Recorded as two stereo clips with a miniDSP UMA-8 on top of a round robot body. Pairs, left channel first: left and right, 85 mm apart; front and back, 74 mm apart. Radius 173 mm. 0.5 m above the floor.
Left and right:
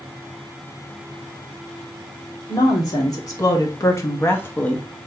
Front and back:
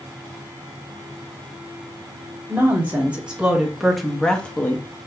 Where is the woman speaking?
120° left, 1.8 m; by 4.9 s 25° left, 1.1 m.